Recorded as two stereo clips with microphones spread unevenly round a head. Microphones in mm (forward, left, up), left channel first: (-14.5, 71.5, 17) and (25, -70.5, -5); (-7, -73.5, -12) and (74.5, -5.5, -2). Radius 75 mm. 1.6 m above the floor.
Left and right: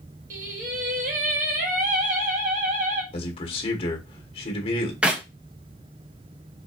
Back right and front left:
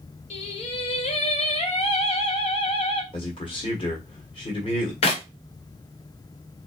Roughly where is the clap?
Behind.